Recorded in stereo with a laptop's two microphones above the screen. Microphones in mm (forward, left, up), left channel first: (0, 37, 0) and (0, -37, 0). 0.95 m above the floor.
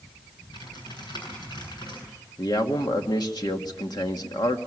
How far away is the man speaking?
About 1.9 m.